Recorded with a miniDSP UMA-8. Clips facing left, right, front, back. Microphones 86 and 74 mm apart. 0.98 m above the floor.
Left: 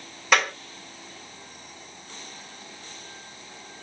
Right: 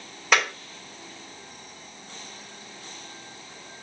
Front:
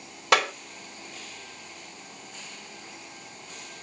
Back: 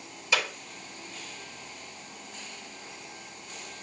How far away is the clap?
About 2.5 m.